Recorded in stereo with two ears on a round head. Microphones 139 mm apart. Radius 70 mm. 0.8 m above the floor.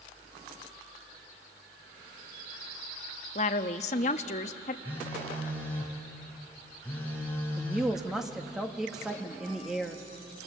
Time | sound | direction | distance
3.4 | a woman speaking | 45° left (ahead or behind) | 0.9 m
4.8 | a phone buzzing | 10° left (ahead or behind) | 4.5 m
7.6 | a woman speaking | 5° right (ahead or behind) | 1.3 m